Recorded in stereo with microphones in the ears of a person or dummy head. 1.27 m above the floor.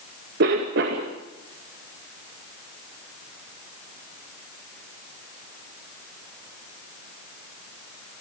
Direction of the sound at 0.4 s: 60° right (ahead or behind).